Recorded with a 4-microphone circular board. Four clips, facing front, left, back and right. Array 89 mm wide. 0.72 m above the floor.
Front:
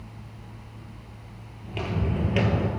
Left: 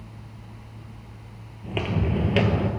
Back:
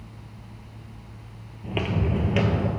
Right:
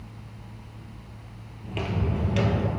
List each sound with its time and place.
1.6 s footsteps: 145° left, 0.9 m; by 2.7 s 70° left, 0.9 m